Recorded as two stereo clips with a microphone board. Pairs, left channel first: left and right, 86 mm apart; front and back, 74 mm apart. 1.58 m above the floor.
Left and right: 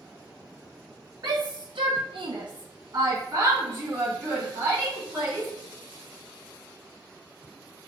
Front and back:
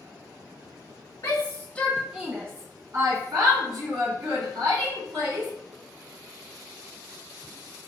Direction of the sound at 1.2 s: 45° right.